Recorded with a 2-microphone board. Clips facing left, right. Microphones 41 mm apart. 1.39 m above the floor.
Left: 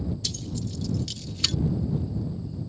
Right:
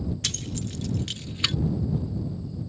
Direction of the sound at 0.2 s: 65° right (ahead or behind).